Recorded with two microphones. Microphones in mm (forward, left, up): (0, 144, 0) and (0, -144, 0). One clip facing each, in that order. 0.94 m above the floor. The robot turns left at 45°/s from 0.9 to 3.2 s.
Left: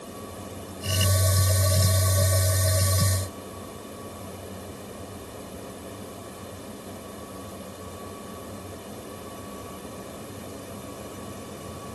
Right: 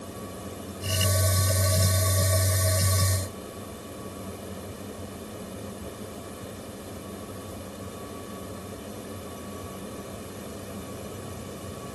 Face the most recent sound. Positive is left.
No sound to turn to.